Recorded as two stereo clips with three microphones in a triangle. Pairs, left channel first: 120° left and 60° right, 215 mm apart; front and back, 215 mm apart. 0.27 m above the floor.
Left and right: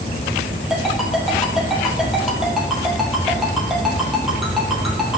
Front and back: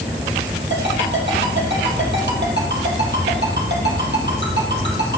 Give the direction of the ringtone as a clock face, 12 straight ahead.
5 o'clock.